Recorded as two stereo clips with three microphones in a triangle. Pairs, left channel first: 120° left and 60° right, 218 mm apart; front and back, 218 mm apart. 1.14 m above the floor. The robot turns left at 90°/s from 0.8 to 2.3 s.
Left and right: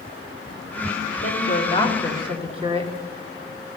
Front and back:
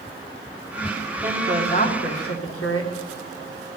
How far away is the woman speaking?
About 2.5 m.